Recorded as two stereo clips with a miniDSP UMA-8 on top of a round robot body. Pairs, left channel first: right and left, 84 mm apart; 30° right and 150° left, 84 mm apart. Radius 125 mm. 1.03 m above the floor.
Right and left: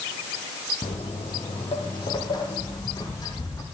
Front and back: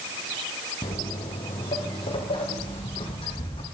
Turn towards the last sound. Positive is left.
turn(degrees=-40)